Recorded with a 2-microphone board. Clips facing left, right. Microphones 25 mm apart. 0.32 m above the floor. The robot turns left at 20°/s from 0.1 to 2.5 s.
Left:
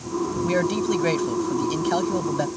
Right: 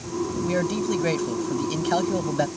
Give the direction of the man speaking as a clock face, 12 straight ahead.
11 o'clock.